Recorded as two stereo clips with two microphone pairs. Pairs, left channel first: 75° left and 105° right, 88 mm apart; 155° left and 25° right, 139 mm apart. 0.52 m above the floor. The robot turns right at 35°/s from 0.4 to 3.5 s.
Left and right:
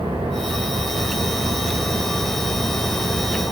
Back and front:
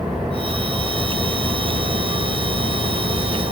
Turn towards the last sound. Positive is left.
turn(degrees=20)